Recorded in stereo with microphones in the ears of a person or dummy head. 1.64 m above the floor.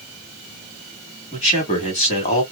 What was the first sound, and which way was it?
A man speaking, 35° left (ahead or behind).